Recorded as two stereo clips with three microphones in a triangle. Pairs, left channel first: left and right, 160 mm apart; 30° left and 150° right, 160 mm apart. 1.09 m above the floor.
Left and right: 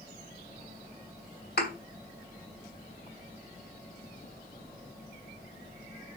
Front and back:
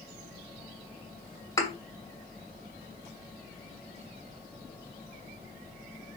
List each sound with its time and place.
1.6 s a thud: 100° left, 2.5 m